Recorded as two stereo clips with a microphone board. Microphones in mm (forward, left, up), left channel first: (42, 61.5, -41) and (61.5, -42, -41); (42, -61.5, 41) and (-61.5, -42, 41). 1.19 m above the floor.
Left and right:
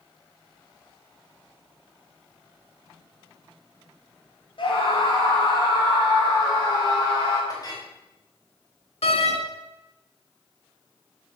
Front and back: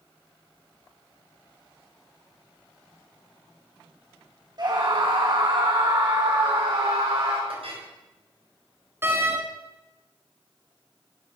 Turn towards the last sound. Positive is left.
turn(degrees=105)